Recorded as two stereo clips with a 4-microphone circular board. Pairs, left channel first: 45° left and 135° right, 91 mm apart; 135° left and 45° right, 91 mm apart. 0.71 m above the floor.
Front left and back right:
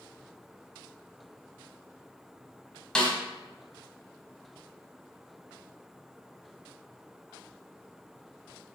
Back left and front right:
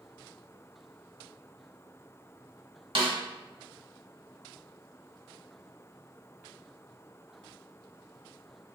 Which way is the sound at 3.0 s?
35° right.